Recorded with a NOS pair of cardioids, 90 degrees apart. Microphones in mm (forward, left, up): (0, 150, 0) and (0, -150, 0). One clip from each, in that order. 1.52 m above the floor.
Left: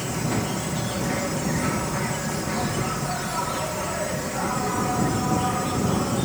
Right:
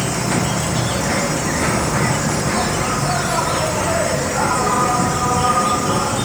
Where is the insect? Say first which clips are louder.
Right 7 dB; 55° right.